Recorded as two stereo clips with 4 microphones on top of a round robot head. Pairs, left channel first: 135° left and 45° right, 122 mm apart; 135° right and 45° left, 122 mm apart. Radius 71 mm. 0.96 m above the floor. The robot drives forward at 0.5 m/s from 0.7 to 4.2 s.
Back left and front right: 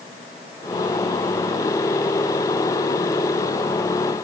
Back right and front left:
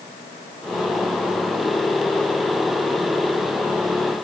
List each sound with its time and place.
Only background noise.